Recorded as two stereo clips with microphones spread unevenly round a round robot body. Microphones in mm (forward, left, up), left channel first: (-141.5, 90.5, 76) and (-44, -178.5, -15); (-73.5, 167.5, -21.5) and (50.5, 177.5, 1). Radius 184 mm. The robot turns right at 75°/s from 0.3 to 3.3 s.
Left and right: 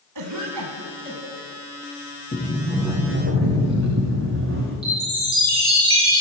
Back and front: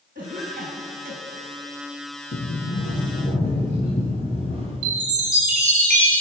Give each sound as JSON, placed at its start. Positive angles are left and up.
{"t": 0.1, "sound": "a cough", "azimuth_deg": -55, "distance_m": 3.5}
{"t": 2.3, "sound": "a sliding door", "azimuth_deg": 170, "distance_m": 8.0}
{"t": 4.8, "sound": "a chime", "azimuth_deg": 0, "distance_m": 5.0}